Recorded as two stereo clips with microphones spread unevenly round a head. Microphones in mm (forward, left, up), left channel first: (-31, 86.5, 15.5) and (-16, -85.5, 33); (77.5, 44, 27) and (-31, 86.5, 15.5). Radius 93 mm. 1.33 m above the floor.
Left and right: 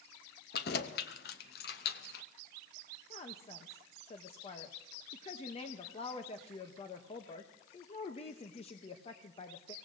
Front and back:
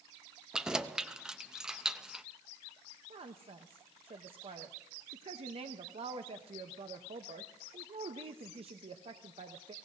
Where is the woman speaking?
140° left, 0.9 m.